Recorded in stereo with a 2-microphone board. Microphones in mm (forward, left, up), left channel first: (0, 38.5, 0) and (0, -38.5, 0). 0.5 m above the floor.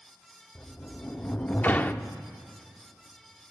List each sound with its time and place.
0.6 s a sliding door: 25° left (ahead or behind), 0.5 m